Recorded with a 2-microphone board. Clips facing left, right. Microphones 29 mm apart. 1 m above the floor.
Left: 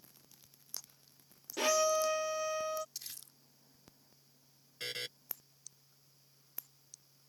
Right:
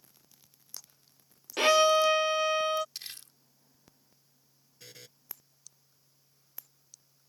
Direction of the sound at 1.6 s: 60° right (ahead or behind).